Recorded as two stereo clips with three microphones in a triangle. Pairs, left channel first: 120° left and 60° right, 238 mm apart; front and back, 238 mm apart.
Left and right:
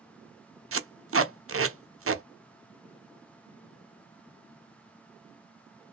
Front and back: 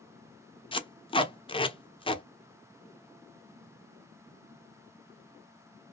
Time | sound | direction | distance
0.7 | tape being pulled | 65° right | 0.6 m